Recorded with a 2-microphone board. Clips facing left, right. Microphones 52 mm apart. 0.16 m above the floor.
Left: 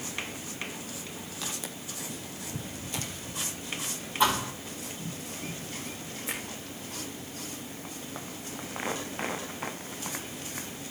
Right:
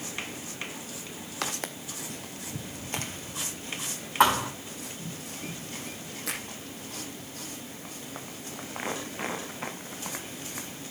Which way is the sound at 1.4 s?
55° right (ahead or behind).